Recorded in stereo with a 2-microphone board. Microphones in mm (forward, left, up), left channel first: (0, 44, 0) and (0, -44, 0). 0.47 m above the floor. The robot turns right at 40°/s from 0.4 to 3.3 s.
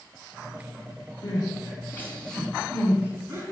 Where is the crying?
50° left (ahead or behind), 4.5 m; by 3.4 s 30° right (ahead or behind), 4.5 m.